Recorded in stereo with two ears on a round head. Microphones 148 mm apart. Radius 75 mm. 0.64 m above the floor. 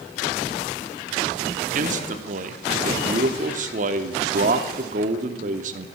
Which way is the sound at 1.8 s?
45° right (ahead or behind).